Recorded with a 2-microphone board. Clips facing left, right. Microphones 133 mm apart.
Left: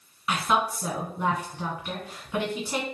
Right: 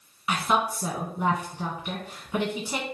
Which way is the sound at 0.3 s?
5° right (ahead or behind).